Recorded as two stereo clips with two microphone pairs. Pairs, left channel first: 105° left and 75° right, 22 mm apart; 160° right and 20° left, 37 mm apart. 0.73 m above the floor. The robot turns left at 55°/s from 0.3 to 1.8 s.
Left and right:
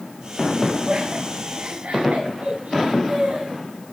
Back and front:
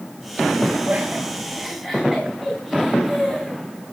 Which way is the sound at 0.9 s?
20° right.